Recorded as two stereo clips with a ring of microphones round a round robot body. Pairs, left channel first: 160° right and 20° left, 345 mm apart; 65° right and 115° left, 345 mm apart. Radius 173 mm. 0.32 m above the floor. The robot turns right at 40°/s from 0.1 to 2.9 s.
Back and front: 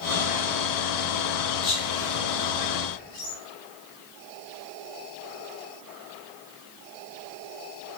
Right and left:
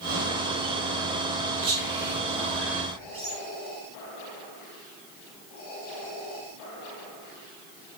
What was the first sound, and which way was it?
Whispering, 135° left.